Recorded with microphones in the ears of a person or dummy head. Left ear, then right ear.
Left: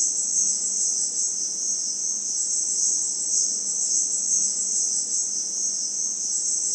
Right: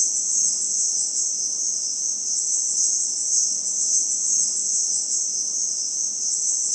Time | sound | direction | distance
0.0 | an insect | 40° right (ahead or behind) | 0.7 m